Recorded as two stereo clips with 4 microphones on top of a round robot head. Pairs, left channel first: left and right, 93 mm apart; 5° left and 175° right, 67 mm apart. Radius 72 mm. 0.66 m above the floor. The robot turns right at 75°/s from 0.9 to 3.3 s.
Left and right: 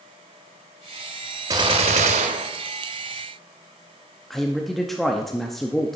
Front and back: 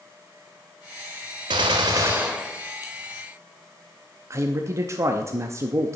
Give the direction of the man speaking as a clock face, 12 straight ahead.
6 o'clock.